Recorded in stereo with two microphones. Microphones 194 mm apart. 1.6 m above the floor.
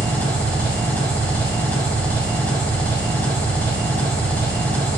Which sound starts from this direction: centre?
An engine running, at 0.0 s.